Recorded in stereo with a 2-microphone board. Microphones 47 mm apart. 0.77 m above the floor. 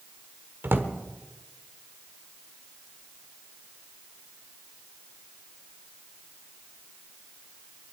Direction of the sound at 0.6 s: 55° right (ahead or behind).